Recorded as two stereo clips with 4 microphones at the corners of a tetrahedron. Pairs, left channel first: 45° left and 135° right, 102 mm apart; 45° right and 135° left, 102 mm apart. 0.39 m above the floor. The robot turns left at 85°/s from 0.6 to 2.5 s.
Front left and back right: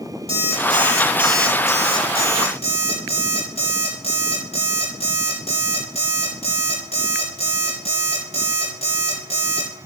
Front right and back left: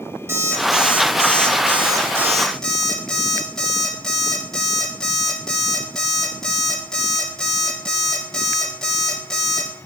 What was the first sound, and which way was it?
An alarm clock, 160° right.